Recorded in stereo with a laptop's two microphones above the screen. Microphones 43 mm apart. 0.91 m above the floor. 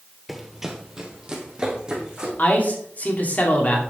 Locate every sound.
0.3 s running footsteps: centre (ahead or behind), 1.3 m; by 2.3 s 20° right (ahead or behind), 4 m
2.4 s a man speaking: 40° left (ahead or behind), 2.5 m